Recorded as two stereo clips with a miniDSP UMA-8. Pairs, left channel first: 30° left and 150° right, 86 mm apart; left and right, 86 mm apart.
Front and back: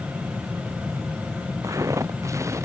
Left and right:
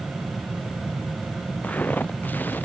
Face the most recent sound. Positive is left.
turn(degrees=155)